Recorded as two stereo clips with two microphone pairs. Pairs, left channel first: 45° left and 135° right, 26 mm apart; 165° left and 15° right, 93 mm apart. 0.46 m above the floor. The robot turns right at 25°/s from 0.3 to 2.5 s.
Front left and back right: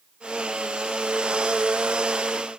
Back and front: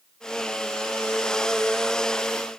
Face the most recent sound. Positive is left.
No sound to turn to.